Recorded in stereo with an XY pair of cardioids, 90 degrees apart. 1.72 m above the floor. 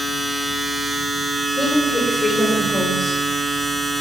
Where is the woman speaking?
45° left, 5 m.